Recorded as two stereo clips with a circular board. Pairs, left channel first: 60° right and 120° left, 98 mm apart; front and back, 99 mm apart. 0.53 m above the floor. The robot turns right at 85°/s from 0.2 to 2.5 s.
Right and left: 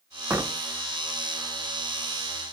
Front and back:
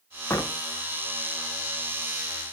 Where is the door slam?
55° left, 0.6 m; by 0.6 s 80° left, 0.6 m.